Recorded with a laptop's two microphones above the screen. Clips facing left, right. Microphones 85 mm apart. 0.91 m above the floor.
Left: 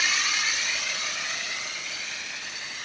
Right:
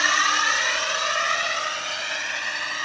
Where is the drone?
55° right (ahead or behind); by 2.9 s 65° right (ahead or behind).